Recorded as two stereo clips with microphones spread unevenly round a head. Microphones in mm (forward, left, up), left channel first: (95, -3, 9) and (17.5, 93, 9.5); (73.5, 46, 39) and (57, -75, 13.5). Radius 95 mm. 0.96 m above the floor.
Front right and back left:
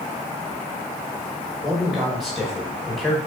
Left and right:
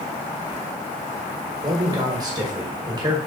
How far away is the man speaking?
About 0.9 m.